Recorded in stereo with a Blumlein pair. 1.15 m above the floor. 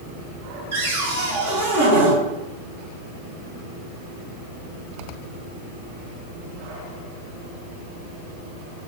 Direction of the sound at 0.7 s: 55° right.